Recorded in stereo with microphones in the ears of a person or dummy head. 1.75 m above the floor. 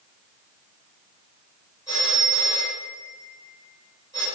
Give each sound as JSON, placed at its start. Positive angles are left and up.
{"t": 1.9, "sound": "a phone ringing", "side_deg": 15, "distance_m": 5.0}